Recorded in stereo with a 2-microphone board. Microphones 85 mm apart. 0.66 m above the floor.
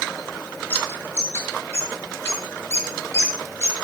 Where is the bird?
30° left (ahead or behind), 9 m.